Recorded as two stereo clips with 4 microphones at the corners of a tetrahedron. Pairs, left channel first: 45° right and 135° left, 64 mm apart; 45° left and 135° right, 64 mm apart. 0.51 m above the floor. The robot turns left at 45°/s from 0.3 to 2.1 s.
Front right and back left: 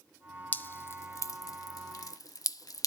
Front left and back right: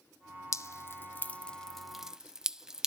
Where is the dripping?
15° left, 0.5 m; by 2.9 s 55° right, 0.5 m.